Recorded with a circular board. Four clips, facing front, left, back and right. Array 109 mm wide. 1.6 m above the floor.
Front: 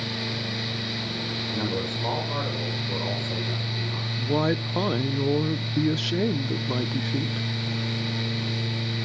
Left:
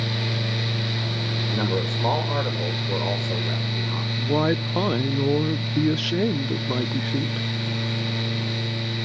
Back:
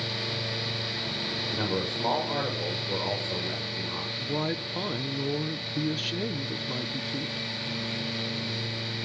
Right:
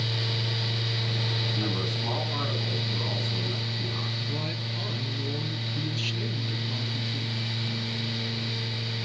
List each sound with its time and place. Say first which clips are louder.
1.5 s a man speaking: left 8 dB, front 1 dB; 95° left, 7 m
4.2 s a woman speaking: left 12 dB, front 7 dB; 65° left, 0.8 m